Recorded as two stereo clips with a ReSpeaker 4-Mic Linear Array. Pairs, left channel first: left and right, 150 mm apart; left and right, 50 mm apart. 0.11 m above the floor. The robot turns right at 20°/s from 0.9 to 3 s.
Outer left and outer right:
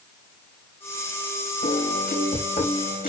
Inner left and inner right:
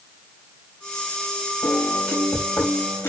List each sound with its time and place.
1.6 s a piano: 85° left, 3 m; by 3.1 s 60° left (ahead or behind), 3 m